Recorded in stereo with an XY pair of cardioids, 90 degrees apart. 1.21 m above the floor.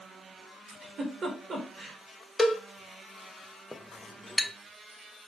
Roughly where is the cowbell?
Ahead left.